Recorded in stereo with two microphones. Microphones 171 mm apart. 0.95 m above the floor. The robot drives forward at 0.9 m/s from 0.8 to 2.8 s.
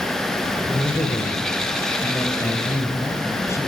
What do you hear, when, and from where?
0.7 s a man speaking: 25° left (ahead or behind), 4 m; by 3.7 s 15° left (ahead or behind), 6 m